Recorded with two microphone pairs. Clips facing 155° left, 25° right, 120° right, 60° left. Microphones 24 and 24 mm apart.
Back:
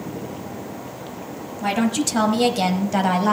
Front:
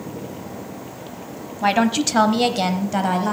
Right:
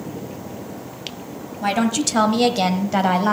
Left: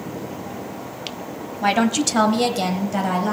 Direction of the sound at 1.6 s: Straight ahead.